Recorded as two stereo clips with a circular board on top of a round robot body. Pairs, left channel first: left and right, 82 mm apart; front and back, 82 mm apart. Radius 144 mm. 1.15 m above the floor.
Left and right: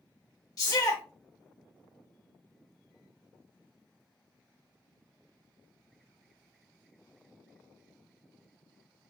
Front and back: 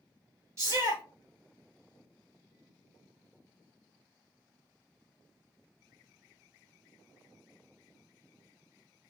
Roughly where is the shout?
Behind left.